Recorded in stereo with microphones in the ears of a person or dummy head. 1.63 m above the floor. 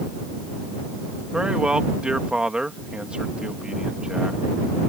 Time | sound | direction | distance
1.3 | a man speaking | centre (ahead or behind) | ?